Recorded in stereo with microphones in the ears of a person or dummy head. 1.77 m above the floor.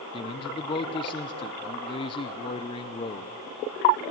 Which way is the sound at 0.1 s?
30° left (ahead or behind).